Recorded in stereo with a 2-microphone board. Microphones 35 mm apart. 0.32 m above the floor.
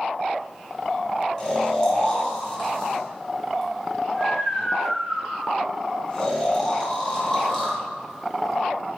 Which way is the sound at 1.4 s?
20° left (ahead or behind).